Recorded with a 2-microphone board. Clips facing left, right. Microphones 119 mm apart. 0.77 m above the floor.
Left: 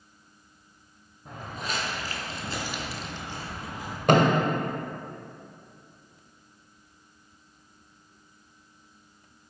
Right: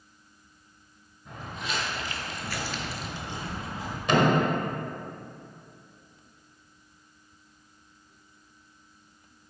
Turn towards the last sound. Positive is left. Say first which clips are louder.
# left 2 dB
turn(degrees=50)  # may be behind; listen again after turning